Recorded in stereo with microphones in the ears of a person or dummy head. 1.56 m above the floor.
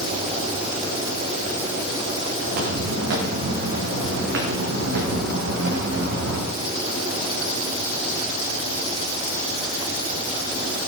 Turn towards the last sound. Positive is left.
turn(degrees=-60)  # may be behind; listen again after turning